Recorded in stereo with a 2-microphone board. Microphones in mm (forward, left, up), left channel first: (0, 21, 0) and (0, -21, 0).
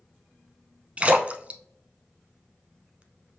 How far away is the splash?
About 0.6 m.